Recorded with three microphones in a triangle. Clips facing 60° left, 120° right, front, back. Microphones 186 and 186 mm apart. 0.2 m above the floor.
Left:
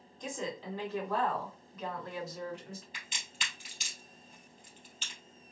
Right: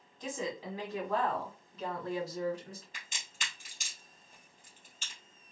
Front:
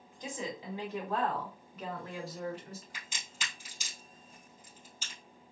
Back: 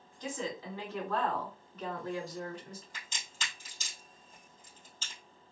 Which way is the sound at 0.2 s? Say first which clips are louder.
Right 1 dB, back 2 dB; 40° right.